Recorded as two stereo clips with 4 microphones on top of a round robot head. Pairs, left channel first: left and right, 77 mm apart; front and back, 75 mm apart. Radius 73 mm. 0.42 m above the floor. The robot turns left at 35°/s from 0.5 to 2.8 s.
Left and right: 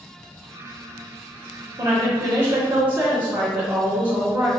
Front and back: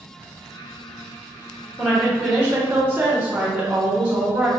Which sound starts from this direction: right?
A woman speaking, at 1.8 s.